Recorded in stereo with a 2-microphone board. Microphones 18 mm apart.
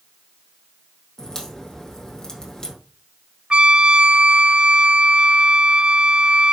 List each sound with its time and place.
1.2 s a crack: 30° left (ahead or behind), 3 m
3.5 s a trumpet: 55° right (ahead or behind), 0.5 m